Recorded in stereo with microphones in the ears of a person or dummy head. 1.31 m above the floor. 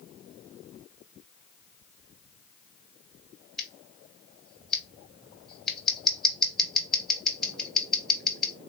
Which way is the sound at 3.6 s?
Centre (ahead or behind).